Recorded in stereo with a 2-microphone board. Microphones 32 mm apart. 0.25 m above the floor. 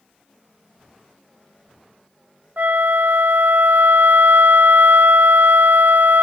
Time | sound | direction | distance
2.6 | a flute | 65° right (ahead or behind) | 0.6 m